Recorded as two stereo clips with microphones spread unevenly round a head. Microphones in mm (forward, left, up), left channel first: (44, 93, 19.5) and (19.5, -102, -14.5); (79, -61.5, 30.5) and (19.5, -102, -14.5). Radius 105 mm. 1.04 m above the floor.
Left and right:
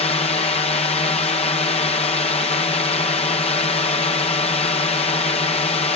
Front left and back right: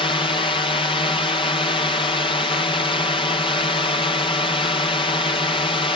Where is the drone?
25° left.